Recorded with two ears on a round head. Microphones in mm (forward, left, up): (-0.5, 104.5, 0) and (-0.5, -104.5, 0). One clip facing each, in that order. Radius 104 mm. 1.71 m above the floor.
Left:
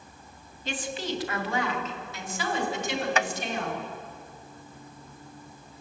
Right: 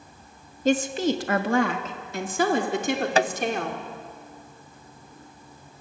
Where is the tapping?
30° right (ahead or behind), 0.6 m.